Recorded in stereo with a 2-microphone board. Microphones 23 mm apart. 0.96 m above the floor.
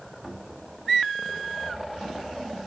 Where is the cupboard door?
10° left (ahead or behind), 2 m.